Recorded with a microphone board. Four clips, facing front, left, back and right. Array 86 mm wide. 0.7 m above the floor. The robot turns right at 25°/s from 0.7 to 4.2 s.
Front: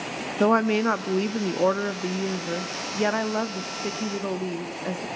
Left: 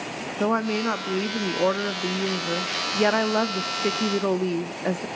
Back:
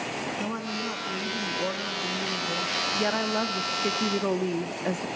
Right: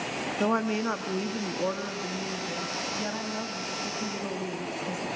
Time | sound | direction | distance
0.4 | a woman speaking | 15° left | 0.8 m